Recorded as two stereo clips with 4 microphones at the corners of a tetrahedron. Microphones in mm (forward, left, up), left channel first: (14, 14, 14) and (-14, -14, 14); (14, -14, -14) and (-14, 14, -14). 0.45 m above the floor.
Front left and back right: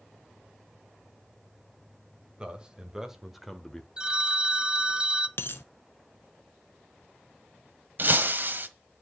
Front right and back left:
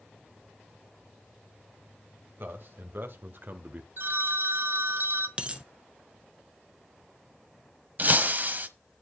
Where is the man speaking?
160° left, 2 m; by 3.9 s 115° left, 1.2 m.